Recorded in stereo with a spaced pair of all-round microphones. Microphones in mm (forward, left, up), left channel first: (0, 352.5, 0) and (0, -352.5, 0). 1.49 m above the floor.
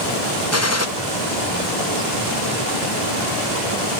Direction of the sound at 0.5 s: 20° left (ahead or behind).